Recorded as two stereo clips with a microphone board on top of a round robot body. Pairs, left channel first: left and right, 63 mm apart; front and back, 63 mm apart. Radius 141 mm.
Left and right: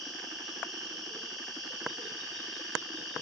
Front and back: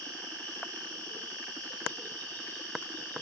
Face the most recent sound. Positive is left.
turn(degrees=175)